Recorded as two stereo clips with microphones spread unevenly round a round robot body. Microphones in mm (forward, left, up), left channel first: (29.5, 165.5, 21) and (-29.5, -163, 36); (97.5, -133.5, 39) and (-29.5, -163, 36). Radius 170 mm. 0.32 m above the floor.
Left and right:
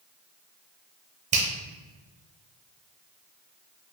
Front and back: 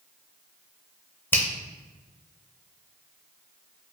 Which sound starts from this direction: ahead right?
A finger snap, at 1.3 s.